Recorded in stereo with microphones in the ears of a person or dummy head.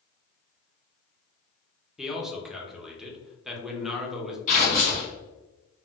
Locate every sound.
2.0 s a man speaking: 5° left (ahead or behind), 0.7 m
4.5 s tearing paper: 55° left (ahead or behind), 1.6 m